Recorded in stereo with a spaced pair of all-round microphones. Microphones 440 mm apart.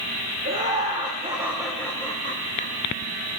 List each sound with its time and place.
0.5 s laughter: 30° right (ahead or behind), 1.5 m; by 2.7 s 30° left (ahead or behind), 1.4 m